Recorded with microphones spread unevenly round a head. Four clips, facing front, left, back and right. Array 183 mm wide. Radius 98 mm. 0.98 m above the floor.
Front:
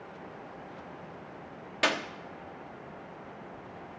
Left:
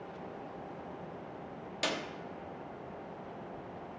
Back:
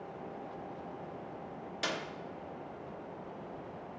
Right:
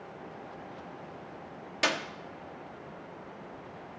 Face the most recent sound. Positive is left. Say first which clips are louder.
# right 5 dB, front 8 dB
turn(degrees=-25)